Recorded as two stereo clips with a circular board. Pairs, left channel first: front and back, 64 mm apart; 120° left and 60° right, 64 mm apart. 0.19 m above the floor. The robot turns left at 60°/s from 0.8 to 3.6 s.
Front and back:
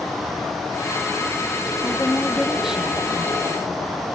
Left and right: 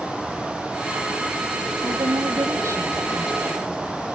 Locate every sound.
1.8 s a woman speaking: 45° right; by 3.9 s 155° right